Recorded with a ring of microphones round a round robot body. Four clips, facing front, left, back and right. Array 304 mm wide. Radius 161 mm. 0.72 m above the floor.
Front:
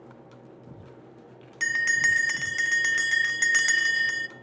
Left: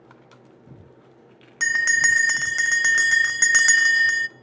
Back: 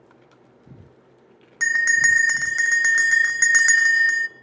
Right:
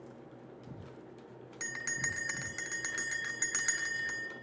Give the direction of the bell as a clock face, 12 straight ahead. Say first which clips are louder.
Left 18 dB, back 6 dB; 9 o'clock.